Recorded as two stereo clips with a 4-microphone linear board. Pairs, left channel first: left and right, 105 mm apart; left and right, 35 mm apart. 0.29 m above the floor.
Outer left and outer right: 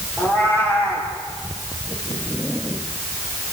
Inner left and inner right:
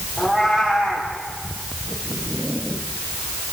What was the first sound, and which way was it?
A cat meowing, 25° right (ahead or behind).